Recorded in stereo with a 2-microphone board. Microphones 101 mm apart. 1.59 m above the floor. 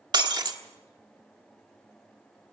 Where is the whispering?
I don't hear whispering.